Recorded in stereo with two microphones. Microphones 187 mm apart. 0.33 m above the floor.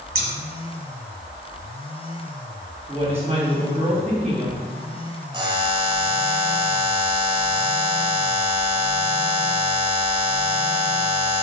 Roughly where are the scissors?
Right.